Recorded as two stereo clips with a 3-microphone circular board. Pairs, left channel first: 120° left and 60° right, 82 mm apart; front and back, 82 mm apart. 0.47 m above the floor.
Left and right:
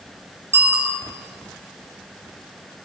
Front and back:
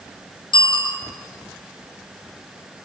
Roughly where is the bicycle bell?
Ahead.